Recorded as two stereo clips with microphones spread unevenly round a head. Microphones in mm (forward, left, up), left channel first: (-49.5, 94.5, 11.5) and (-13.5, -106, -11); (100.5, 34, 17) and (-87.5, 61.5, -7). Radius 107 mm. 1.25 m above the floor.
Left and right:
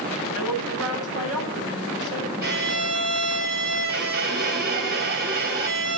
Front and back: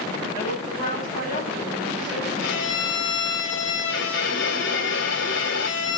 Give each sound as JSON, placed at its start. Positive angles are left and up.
{"t": 0.3, "sound": "a woman speaking", "azimuth_deg": -85, "distance_m": 9.5}
{"t": 2.4, "sound": "a violin", "azimuth_deg": -35, "distance_m": 2.5}